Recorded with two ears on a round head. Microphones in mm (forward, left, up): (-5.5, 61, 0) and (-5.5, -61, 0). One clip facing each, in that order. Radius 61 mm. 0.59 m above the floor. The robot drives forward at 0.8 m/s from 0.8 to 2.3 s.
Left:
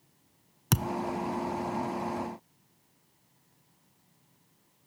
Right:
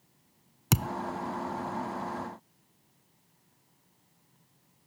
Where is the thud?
5° right (ahead or behind).